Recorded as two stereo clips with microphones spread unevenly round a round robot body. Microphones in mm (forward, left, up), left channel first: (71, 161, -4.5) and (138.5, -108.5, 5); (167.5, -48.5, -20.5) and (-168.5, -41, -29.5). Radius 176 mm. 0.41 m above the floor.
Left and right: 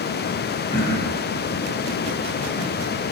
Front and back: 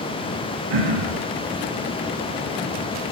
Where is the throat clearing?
175° right, 10 m.